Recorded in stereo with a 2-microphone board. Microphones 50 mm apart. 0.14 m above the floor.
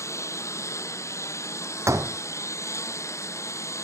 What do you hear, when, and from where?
0.0 s a lawn mower: 75° left (ahead or behind)
1.9 s a door slam: 80° right